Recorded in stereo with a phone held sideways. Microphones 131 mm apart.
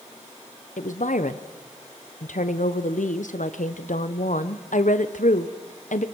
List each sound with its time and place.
0.8 s a woman speaking: 85° left, 1.1 m